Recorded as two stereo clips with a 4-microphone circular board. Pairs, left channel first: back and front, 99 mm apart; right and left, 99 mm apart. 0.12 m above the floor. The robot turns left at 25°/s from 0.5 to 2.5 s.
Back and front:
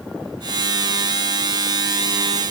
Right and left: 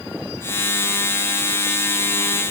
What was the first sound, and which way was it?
Only background noise.